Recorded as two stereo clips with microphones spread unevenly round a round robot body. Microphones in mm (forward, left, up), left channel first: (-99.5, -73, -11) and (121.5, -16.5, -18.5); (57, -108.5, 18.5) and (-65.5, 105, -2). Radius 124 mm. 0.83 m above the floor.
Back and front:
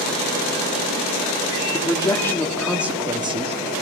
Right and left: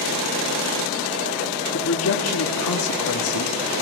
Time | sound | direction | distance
1.7 | a man speaking | 95° right | 1.6 m